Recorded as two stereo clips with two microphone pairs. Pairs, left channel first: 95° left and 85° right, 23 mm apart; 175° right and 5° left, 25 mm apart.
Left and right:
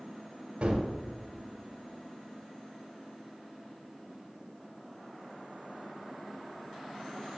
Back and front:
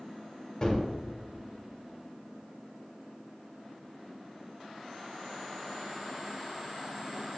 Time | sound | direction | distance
0.6 | a gunshot | 120° right | 1.2 m